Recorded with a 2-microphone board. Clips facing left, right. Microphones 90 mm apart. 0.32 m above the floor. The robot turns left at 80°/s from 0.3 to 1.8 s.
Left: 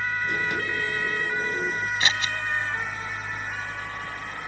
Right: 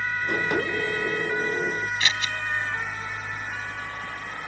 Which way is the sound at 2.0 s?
30° left (ahead or behind).